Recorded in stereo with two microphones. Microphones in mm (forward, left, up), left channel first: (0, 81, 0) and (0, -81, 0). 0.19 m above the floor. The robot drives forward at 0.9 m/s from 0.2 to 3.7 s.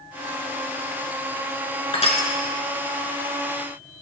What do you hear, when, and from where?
1.9 s crushing: 35° left (ahead or behind), 1.0 m; by 2.3 s 50° left (ahead or behind), 0.8 m